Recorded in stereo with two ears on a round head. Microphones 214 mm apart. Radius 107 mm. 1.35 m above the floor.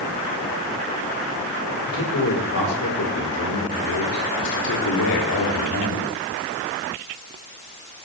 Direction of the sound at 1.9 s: 55° left (ahead or behind).